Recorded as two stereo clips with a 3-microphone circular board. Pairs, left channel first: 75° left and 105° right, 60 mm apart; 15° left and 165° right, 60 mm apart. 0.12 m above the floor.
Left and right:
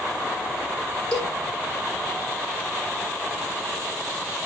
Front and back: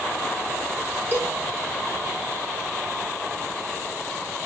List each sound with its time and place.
1.1 s a cowbell: 145° left, 2.5 m